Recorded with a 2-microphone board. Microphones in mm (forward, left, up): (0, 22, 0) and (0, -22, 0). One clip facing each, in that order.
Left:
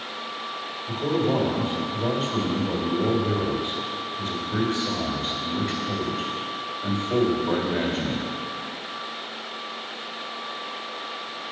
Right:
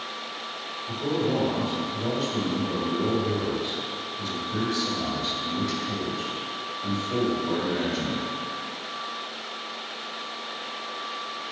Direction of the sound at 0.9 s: 25° left (ahead or behind).